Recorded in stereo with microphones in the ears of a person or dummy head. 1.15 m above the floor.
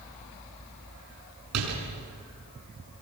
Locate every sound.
1.5 s a door slam: 85° right, 7.5 m